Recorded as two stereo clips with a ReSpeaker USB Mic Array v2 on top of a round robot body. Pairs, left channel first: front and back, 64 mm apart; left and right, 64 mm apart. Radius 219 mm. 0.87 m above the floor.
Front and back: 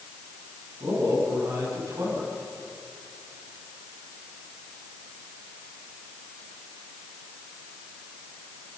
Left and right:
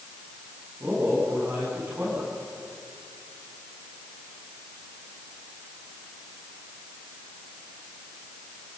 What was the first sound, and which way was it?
A man speaking, 155° right.